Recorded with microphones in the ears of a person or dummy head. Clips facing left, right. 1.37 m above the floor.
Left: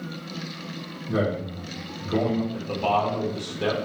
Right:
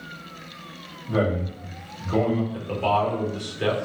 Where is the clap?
I don't hear a clap.